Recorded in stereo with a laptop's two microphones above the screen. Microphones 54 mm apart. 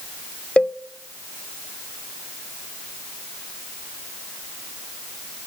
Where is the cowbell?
20° left (ahead or behind), 0.5 m.